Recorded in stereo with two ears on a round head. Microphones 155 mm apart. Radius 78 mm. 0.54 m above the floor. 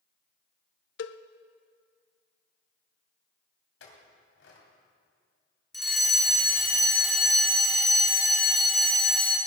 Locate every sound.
1.0 s a cowbell: 75° left (ahead or behind), 0.6 m
3.8 s a clink: 75° left (ahead or behind), 3 m
5.7 s a fire alarm: centre (ahead or behind), 2 m